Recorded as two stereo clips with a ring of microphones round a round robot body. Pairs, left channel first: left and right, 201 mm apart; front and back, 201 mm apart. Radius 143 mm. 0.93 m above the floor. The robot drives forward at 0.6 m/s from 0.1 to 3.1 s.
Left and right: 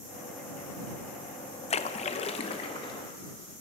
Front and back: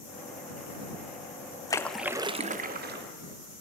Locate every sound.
1.7 s a splash: 60° left, 0.5 m; by 3.1 s 160° left, 0.9 m